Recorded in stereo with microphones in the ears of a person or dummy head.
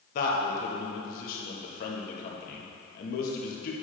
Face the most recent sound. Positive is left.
turn(degrees=50)  # may be behind; listen again after turning